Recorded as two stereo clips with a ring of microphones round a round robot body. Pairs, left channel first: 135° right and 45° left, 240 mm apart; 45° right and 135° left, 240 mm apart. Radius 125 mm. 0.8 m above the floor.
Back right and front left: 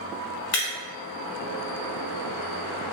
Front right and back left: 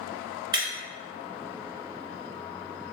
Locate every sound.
0.5 s breaking glass: 155° right, 1.9 m